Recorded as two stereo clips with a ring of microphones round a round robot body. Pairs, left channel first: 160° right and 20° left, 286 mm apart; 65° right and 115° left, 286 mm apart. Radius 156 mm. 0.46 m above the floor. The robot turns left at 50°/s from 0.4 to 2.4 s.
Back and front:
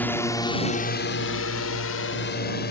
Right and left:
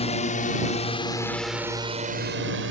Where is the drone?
85° right; by 2.7 s 150° left.